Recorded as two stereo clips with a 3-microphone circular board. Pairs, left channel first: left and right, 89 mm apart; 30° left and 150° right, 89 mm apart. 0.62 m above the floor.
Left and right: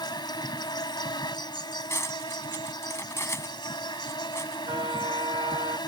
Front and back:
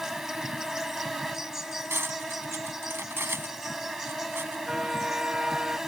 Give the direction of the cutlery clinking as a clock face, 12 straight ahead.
7 o'clock.